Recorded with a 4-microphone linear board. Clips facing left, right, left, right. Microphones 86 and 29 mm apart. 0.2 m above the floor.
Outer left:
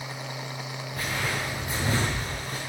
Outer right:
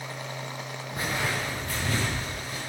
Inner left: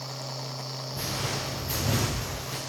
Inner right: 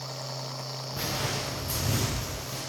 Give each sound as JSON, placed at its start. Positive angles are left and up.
{"t": 0.9, "sound": "footsteps", "side_deg": -20, "distance_m": 1.4}